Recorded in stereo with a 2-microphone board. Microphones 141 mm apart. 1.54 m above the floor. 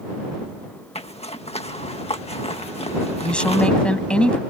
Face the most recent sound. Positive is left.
turn(degrees=10)  # may be behind; listen again after turning